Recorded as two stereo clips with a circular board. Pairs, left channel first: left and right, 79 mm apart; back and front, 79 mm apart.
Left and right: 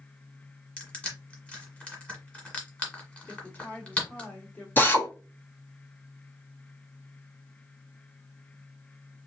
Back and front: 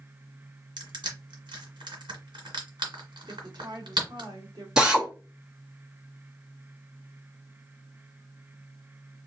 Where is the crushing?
15° left, 1.5 m.